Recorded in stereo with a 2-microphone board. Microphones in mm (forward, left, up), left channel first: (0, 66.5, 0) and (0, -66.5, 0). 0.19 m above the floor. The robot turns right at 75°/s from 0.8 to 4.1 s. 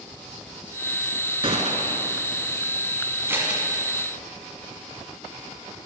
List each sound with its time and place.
1.4 s a gunshot: 135° right, 0.9 m; by 2.1 s 85° right, 0.9 m
3.3 s scissors: 20° right (ahead or behind), 1.7 m; by 3.6 s 5° right (ahead or behind), 1.7 m